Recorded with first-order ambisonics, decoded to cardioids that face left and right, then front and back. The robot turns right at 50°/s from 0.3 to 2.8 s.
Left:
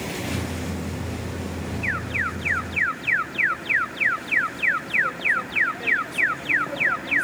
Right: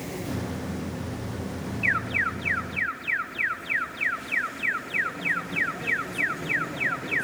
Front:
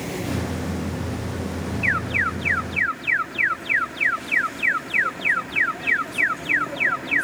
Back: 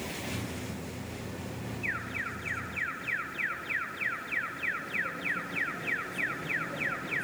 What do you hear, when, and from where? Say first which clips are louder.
1.8 s an alarm: right 1 dB, front 13 dB; straight ahead, 1.5 m; by 7.2 s 50° left, 1.5 m